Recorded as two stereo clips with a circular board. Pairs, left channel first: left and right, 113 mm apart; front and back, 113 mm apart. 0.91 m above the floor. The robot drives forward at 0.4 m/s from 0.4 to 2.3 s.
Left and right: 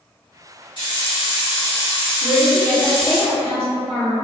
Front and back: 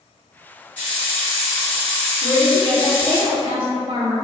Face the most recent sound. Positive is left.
turn(degrees=165)